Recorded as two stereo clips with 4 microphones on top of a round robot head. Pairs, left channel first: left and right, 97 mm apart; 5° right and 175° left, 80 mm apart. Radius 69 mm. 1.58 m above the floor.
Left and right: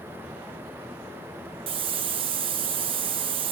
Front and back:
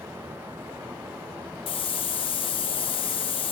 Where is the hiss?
45° right, 1.1 m.